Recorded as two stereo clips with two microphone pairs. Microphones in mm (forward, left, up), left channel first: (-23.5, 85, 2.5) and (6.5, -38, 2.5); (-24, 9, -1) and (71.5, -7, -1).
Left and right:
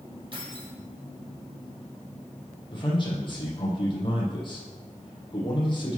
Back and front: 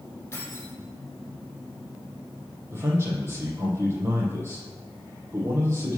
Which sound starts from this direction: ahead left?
A man speaking, at 2.7 s.